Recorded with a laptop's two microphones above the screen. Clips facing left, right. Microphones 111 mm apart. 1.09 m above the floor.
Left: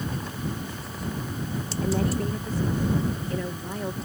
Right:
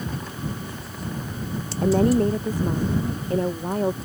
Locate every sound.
1.8 s a woman speaking: 45° right (ahead or behind)